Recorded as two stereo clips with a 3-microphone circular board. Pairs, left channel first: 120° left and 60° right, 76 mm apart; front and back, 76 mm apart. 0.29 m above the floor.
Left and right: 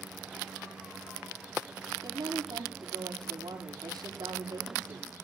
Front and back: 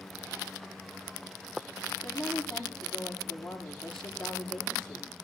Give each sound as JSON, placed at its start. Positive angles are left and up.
{"t": 2.0, "sound": "a woman speaking", "azimuth_deg": -85, "distance_m": 8.5}